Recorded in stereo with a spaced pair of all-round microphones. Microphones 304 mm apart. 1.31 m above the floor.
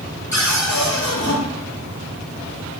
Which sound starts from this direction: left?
A cupboard door, at 0.3 s.